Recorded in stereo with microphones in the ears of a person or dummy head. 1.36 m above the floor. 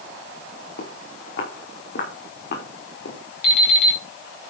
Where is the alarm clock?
65° left (ahead or behind), 6.5 m.